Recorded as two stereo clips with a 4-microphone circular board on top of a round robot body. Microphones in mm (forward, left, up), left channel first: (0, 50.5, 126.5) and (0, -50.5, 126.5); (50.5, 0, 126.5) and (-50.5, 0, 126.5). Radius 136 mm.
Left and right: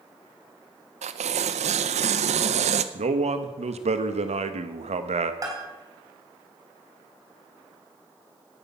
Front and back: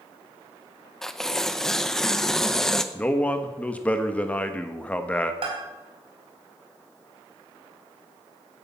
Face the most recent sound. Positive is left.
turn(degrees=-145)